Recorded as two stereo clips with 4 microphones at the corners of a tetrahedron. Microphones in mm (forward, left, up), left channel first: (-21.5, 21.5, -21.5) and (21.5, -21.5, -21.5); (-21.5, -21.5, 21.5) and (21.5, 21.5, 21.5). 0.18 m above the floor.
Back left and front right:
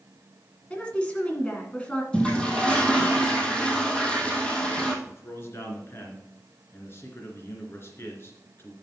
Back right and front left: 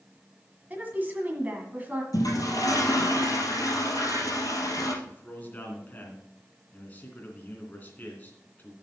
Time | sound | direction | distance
0.7 | a woman speaking | 80° left | 1.7 m
2.1 | a toilet flushing | 150° right | 2 m
5.0 | a man speaking | 170° left | 2.5 m